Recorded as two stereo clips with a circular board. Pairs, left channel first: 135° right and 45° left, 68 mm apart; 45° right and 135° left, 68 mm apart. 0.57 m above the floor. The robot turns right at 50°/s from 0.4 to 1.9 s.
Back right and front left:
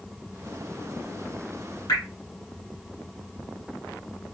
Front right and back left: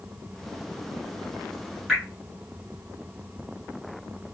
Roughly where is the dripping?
Behind right.